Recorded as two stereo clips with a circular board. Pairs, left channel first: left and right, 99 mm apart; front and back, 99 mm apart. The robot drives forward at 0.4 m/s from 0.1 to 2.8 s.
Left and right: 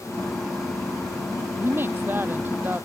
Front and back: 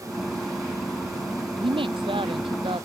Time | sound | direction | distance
1.6 | a woman speaking | 155° right | ?